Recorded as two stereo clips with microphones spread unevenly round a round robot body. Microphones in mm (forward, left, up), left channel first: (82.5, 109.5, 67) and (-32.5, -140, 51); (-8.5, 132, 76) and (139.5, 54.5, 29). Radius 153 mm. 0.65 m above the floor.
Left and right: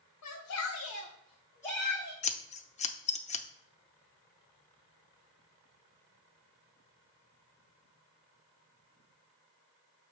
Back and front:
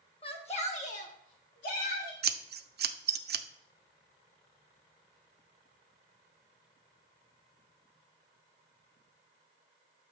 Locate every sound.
0.2 s a shout: 90° left, 1.5 m; by 2.1 s 170° left, 1.4 m
2.2 s scissors: straight ahead, 0.6 m